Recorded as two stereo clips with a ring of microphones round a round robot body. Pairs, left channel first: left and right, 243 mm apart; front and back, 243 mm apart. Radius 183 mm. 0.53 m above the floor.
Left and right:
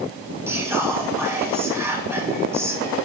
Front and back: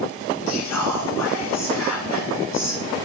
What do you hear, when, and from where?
0.5 s whispering: 10° right, 4.5 m